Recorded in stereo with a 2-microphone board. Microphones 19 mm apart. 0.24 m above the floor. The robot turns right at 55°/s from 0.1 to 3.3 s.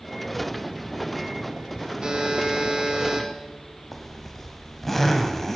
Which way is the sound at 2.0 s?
115° right.